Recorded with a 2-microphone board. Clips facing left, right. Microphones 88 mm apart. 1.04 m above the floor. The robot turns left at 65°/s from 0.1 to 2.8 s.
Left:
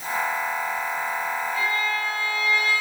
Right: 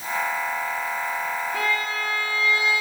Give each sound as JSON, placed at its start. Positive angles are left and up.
{"t": 1.5, "sound": "a violin", "azimuth_deg": -80, "distance_m": 1.3}